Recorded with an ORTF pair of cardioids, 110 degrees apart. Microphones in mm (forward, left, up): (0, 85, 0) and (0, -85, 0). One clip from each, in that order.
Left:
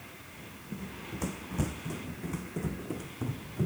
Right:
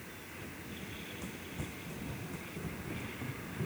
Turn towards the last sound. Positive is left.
turn(degrees=50)